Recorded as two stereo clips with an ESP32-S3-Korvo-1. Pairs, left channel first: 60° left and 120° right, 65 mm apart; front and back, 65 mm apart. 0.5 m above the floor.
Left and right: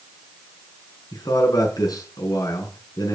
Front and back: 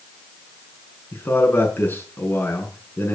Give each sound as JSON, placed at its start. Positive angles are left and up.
{"t": 1.1, "sound": "a man speaking", "azimuth_deg": 55, "distance_m": 6.0}